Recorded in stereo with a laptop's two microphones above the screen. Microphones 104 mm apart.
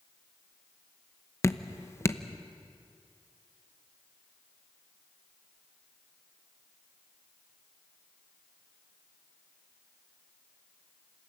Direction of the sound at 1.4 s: 25° left (ahead or behind).